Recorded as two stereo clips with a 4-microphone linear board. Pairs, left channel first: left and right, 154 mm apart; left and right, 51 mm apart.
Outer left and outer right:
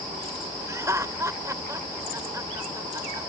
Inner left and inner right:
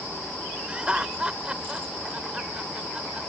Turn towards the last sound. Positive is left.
turn(degrees=-20)  # may be behind; listen again after turning